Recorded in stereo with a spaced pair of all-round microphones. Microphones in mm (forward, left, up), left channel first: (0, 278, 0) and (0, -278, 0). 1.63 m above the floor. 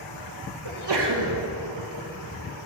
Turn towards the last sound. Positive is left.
turn(degrees=-50)  # may be behind; listen again after turning